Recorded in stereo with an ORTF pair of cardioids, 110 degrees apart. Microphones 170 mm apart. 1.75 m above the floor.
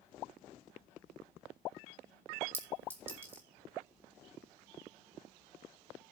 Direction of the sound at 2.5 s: 10° right.